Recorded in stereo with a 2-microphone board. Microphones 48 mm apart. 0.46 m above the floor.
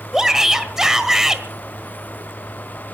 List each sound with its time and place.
0.1 s a shout: 10° right (ahead or behind), 1.6 m